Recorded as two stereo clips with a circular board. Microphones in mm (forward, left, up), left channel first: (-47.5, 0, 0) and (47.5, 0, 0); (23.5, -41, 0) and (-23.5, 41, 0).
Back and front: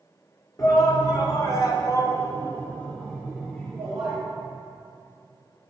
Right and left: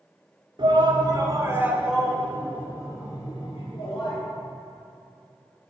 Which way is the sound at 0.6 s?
135° left.